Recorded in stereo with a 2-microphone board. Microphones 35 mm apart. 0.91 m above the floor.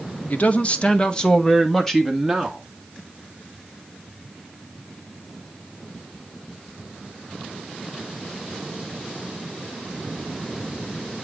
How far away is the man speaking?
About 1.0 m.